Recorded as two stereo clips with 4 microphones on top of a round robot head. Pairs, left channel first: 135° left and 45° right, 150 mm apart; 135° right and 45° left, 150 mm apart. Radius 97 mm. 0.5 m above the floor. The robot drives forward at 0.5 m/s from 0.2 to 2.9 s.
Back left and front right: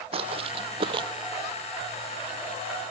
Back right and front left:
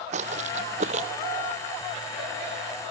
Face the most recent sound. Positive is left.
turn(degrees=165)